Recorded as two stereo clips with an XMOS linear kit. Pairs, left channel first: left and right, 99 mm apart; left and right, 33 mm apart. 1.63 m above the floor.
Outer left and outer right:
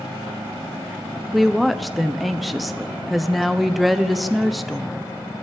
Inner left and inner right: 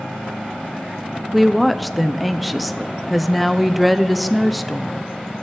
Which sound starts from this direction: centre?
A woman speaking, at 1.3 s.